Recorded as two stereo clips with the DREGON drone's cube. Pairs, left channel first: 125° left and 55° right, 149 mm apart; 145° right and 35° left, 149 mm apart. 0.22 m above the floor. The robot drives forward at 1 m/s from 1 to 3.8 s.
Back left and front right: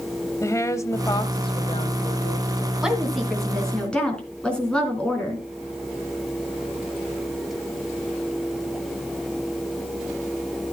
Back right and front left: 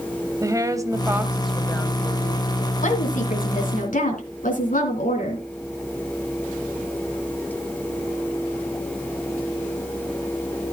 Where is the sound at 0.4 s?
75° left, 1.1 m; by 2.7 s 160° left, 2.0 m.